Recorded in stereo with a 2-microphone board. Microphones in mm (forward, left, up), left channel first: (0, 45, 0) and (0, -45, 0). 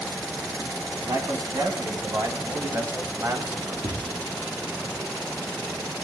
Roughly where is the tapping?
Right.